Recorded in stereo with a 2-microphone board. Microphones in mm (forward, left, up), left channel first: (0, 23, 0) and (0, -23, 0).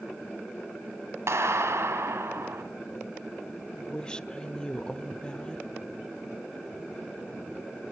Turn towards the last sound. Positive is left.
turn(degrees=20)  # may be behind; listen again after turning